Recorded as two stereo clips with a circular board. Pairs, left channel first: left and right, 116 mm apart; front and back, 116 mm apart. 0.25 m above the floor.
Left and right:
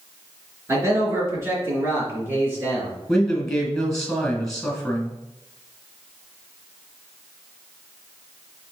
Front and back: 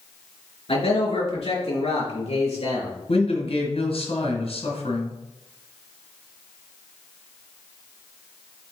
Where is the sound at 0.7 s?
25° right, 3.5 m; by 3.0 s 20° right, 4.5 m.